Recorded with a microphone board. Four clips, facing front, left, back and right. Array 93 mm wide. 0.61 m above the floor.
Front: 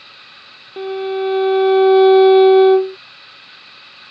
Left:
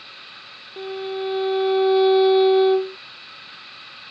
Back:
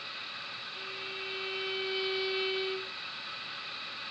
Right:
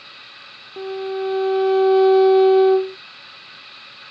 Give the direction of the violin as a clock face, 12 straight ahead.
12 o'clock.